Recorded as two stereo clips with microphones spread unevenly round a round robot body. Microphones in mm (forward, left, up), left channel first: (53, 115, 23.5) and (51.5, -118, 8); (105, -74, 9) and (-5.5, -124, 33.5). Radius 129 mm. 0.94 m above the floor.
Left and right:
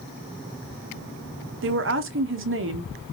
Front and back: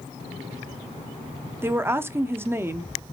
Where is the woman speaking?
80° right, 0.8 m.